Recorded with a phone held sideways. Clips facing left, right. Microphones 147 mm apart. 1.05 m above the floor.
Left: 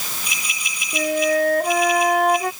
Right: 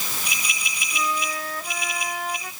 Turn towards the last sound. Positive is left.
turn(degrees=65)  # may be behind; listen again after turning